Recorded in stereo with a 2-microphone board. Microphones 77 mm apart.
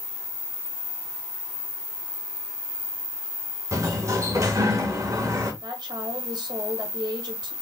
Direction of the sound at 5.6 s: 70° right (ahead or behind).